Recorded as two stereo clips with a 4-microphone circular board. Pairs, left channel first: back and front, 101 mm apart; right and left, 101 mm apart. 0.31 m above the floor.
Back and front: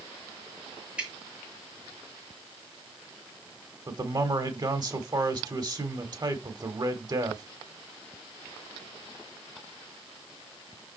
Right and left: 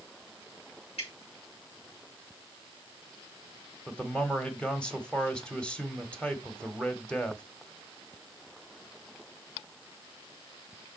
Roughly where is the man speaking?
Ahead.